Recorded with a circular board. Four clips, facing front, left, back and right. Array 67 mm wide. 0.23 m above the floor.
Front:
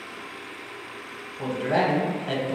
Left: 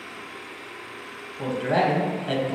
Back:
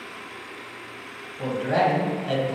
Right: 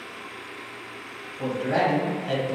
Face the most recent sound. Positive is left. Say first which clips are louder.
# left 1 dB, back 1 dB
turn(degrees=85)